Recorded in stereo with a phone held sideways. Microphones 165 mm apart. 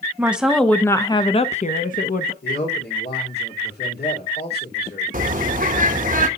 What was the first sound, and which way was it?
A woman speaking, 10° right (ahead or behind).